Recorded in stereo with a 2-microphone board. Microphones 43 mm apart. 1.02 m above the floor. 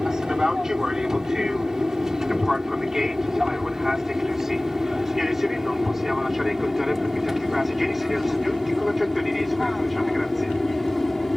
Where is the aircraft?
15° right (ahead or behind); by 11.4 s centre (ahead or behind).